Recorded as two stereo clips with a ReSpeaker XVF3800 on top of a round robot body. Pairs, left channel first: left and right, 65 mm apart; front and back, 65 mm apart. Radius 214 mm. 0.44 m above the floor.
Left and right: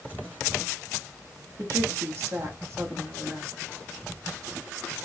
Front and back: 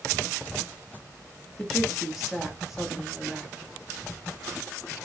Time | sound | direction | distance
1.6 | a woman speaking | 95° right | 1.7 m